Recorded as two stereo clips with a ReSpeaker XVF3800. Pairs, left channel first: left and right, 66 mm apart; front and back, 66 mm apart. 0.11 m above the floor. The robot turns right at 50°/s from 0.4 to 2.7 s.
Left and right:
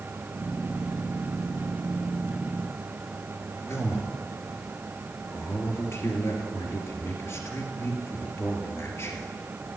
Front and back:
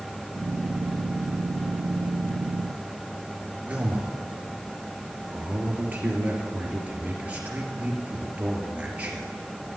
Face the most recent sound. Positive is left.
turn(degrees=120)